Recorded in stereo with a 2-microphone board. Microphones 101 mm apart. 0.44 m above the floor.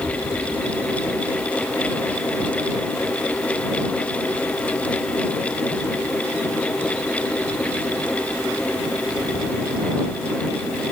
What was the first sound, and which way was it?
Only background noise.